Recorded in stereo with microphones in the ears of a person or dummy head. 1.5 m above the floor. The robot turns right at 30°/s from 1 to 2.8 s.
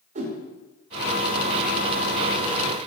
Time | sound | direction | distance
0.1 | a whoosh | 40° right (ahead or behind) | 0.7 m